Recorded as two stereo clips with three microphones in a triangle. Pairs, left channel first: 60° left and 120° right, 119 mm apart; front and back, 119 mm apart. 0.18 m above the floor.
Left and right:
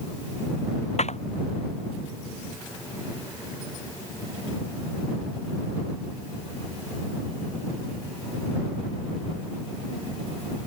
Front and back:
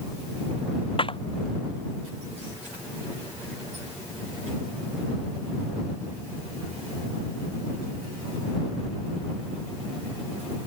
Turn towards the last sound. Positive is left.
turn(degrees=40)